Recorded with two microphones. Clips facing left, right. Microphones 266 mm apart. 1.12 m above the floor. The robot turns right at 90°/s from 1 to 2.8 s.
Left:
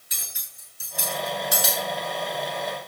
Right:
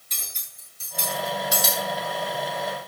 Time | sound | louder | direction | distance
0.1 | cutlery clinking | right 1 dB | 10° left (ahead or behind) | 7.5 m